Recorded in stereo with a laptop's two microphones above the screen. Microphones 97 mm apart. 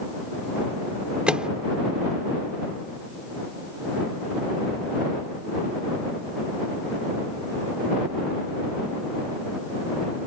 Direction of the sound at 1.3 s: 10° right (ahead or behind).